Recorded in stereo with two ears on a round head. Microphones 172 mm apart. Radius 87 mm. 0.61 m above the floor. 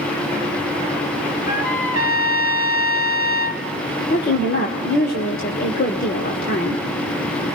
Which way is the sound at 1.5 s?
45° left (ahead or behind).